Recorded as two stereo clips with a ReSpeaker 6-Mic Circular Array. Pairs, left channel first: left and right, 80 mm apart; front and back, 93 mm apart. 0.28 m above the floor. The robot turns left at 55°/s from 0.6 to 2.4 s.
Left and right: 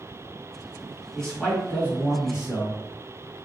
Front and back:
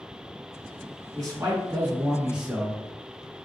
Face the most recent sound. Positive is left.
turn(degrees=105)